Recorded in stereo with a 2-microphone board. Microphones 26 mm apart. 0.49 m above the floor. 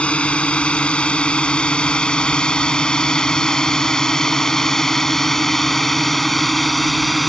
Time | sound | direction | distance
0.0 | a drone | 50° left (ahead or behind) | ?